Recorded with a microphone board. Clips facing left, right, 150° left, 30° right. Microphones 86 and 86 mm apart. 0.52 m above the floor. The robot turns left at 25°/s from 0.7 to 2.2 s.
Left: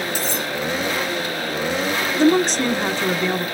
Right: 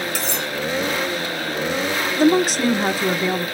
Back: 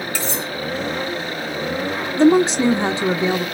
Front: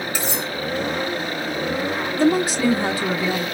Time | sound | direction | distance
0.1 | cutlery clinking | 105° right | 1.3 m
2.2 | a woman speaking | 170° right | 1.0 m